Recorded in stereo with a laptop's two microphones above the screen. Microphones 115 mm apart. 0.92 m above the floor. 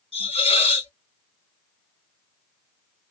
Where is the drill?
I don't hear a drill.